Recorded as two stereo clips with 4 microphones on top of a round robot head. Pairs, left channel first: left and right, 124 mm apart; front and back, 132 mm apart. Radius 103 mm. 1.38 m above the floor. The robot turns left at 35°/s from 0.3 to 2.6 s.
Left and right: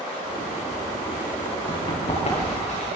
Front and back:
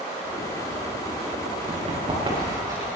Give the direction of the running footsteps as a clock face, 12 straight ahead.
7 o'clock.